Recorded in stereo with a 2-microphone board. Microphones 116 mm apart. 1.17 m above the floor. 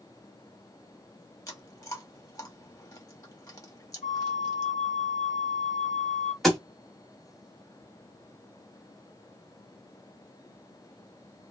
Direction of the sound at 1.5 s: 30° left (ahead or behind).